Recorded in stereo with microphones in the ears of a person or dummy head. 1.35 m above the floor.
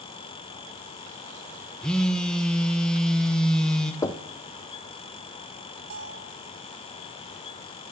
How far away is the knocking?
About 0.5 m.